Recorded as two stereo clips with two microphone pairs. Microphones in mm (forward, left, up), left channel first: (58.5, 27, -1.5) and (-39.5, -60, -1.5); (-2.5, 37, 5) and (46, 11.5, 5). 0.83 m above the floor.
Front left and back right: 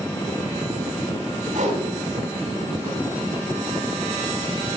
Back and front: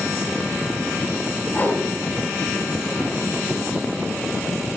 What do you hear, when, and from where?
1.5 s a whoosh: 150° right, 6 m